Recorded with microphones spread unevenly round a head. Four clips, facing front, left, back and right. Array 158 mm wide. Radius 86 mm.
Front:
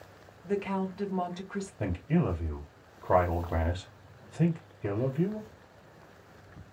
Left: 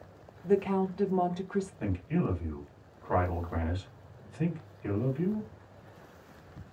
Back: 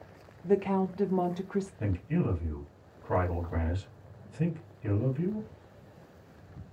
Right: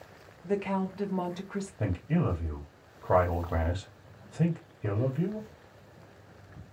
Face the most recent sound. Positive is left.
turn(degrees=-45)